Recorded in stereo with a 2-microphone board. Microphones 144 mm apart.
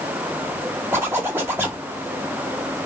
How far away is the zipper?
About 1.3 m.